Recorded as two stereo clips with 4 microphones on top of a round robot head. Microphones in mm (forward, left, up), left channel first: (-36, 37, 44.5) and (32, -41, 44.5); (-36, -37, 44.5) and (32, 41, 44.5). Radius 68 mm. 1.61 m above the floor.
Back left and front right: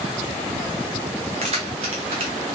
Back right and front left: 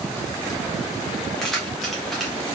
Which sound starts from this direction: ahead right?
Keys jangling, at 1.4 s.